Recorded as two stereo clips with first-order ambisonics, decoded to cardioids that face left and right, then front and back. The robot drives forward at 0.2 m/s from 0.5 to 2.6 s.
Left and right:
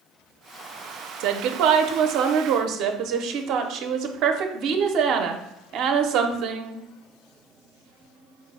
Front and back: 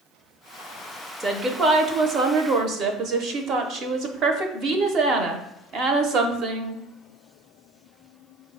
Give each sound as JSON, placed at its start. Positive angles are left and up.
{"t": 1.2, "sound": "a woman speaking", "azimuth_deg": -105, "distance_m": 0.5}